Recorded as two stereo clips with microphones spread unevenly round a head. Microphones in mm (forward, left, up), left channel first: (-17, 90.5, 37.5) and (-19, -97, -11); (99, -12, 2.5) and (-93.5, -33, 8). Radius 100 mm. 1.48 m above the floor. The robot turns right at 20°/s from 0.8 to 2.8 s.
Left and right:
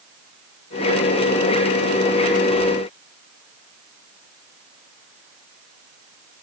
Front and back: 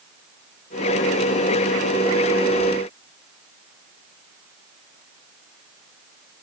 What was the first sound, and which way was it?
Only background noise.